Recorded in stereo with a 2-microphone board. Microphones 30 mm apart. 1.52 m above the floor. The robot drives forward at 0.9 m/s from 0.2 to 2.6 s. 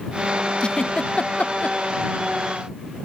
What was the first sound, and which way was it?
A giggle, 35° left (ahead or behind).